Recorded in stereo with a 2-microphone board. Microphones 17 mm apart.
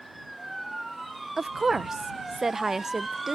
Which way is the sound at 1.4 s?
25° right (ahead or behind).